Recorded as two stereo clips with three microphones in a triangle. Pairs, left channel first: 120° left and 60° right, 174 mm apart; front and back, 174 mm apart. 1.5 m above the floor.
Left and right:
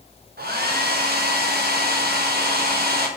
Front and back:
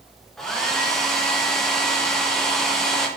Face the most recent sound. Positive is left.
turn(degrees=-85)